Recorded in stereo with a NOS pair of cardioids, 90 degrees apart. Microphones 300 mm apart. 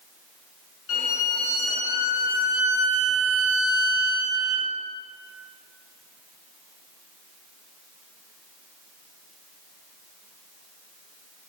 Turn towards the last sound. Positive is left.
turn(degrees=50)